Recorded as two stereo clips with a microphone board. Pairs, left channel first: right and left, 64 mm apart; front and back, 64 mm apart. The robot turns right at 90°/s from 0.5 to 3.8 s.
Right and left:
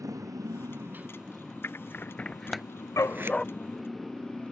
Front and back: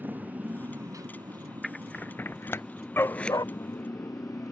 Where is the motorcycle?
120° left; by 4.5 s 15° right.